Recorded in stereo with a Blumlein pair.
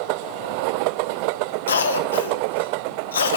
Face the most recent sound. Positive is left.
turn(degrees=70)